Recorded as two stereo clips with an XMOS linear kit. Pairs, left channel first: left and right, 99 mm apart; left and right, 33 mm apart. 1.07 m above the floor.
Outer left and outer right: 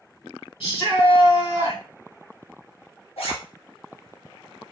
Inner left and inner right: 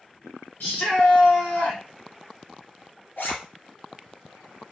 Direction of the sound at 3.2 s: 80° left.